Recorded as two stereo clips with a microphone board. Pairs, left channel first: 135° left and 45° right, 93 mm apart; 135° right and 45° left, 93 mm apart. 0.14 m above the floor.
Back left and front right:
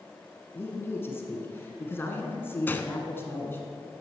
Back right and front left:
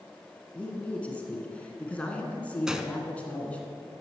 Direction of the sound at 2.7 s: 120° left.